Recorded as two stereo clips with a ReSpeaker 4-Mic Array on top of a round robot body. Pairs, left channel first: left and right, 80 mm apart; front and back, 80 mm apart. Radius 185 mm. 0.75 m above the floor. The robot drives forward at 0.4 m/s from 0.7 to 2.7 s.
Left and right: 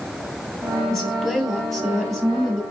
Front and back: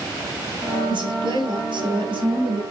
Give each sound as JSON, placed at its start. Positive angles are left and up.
{"t": 0.9, "sound": "a woman speaking", "azimuth_deg": 175, "distance_m": 4.0}